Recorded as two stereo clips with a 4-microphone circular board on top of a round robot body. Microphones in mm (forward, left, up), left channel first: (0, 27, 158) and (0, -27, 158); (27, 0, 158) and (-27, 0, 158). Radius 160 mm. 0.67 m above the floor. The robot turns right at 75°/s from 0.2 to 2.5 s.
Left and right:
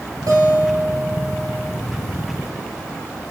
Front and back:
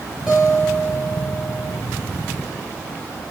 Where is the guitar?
105° right, 2.5 m; by 1.8 s 5° left, 2.5 m.